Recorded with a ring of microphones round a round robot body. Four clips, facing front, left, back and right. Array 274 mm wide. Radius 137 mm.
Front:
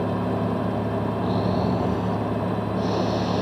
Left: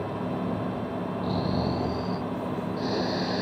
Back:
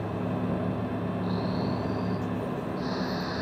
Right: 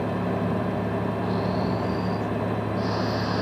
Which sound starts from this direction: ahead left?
Snoring, at 1.2 s.